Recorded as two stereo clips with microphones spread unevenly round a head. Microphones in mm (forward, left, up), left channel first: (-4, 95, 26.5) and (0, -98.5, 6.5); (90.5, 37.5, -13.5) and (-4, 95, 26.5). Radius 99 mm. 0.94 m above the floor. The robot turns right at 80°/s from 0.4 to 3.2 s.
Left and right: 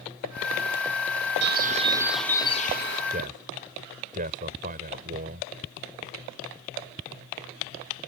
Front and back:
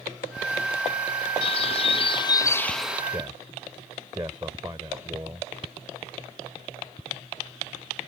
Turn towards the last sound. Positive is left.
turn(degrees=-140)